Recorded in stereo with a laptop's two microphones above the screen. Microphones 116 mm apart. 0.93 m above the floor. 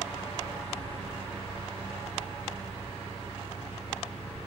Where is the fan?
55° left (ahead or behind), 0.8 m.